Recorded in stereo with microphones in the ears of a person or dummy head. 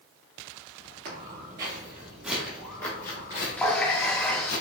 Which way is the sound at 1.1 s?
40° right (ahead or behind).